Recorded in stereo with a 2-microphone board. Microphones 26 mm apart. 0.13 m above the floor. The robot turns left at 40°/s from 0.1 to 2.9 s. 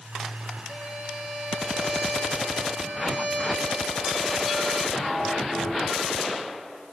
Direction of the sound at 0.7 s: 10° left.